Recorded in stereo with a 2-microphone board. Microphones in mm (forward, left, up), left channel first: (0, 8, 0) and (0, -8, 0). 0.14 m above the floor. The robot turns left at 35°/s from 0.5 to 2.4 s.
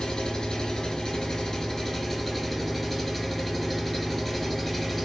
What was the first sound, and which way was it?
An engine running, 80° left.